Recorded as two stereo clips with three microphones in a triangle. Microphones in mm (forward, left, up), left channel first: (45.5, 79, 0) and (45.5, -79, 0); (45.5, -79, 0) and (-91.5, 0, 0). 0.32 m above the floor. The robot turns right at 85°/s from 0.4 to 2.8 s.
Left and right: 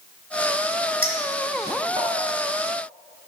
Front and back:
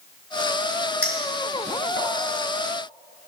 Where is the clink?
110° right, 3 m; by 2.1 s 20° right, 3 m.